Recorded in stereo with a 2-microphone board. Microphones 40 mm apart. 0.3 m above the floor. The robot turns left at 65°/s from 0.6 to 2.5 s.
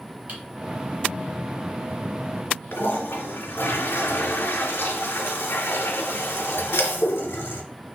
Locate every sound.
0.3 s typing on a keyboard: 40° right (ahead or behind), 1.9 m
2.7 s a toilet flushing: 85° left, 0.8 m